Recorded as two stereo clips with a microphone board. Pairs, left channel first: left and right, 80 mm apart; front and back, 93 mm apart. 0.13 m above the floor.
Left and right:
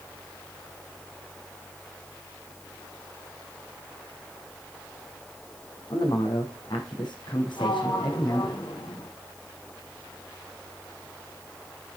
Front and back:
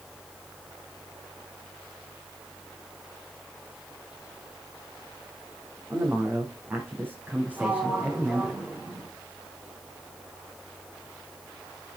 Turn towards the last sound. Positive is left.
turn(degrees=105)